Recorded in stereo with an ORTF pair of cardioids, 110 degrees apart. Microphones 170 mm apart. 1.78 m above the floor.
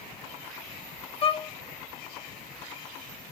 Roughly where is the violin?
Ahead left.